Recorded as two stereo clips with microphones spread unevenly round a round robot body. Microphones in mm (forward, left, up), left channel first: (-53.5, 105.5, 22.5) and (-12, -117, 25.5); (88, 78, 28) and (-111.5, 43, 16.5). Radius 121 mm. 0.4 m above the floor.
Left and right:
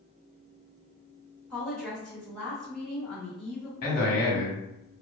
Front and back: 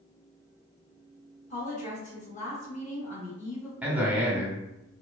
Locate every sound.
1.5 s a woman speaking: 15° left, 1.0 m
3.8 s a man speaking: 115° left, 0.9 m